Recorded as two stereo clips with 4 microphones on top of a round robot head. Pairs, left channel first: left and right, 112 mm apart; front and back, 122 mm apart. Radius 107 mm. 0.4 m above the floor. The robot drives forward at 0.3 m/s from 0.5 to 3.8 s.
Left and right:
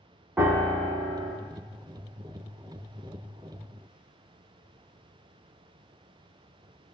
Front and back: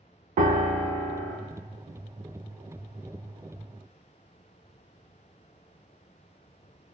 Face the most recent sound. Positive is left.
turn(degrees=-175)